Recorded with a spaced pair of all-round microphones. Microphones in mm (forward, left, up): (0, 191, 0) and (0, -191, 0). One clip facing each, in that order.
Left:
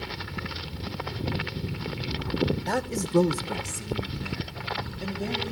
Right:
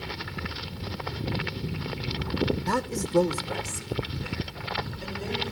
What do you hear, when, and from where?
2.7 s a man speaking: 20° right (ahead or behind), 1.0 m; by 5.5 s 65° left (ahead or behind), 4 m